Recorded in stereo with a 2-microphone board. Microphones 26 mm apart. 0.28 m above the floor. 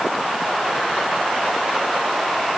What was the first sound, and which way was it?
Only background noise.